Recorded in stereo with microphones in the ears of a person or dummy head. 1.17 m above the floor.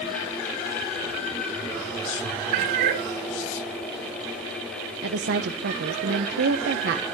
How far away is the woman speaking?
About 1.0 m.